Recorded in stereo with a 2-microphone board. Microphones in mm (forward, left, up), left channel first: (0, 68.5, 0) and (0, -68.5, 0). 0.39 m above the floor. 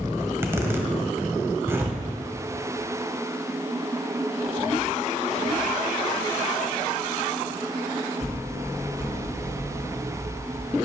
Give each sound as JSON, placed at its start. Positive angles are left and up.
{"t": 0.2, "sound": "a zipper", "side_deg": -20, "distance_m": 1.2}